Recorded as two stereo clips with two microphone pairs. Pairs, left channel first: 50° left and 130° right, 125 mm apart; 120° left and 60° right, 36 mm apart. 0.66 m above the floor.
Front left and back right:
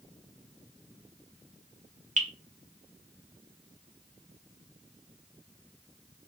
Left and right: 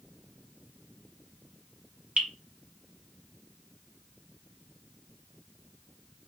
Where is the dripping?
120° right, 1.2 m.